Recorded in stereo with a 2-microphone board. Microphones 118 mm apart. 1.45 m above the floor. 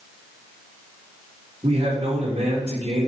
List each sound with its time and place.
1.6 s a man speaking: 60° right (ahead or behind), 5 m